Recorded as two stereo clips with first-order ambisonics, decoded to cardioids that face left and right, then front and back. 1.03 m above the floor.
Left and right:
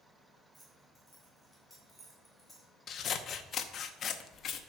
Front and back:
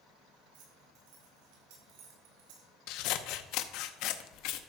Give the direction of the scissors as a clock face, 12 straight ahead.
11 o'clock.